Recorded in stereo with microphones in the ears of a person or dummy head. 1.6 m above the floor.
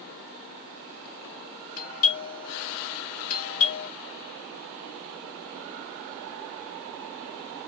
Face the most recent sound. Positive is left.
turn(degrees=75)  # may be behind; listen again after turning